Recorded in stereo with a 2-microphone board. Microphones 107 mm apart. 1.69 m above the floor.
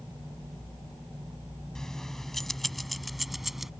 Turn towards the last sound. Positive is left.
turn(degrees=-5)  # may be behind; listen again after turning